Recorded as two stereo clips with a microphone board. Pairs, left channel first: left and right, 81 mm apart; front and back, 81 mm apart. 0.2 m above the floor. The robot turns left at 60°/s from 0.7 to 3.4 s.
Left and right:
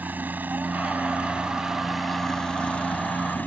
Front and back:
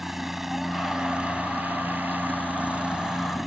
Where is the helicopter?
100° right; by 3.5 s 100° left.